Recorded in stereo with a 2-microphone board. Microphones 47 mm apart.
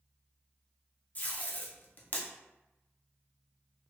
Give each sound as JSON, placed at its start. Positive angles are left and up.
{"t": 1.1, "sound": "tape being pulled", "side_deg": 40, "distance_m": 0.6}